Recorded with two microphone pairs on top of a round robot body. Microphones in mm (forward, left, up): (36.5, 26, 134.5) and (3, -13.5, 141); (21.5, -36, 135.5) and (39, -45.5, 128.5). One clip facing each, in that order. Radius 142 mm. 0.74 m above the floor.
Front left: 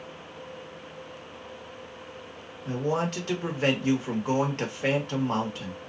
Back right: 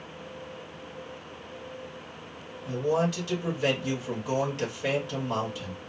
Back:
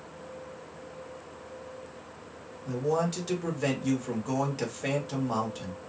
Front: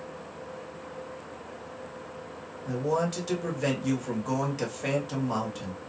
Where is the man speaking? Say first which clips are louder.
Back right 1 dB, even; 45° left, 1.6 m.